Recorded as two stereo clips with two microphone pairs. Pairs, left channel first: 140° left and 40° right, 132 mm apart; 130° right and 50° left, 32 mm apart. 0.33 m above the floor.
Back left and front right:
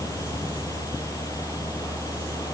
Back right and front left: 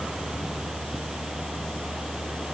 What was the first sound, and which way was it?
Only background noise.